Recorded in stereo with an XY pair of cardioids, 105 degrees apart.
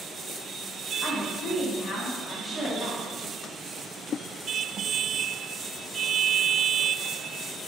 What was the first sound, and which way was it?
A woman speaking, straight ahead.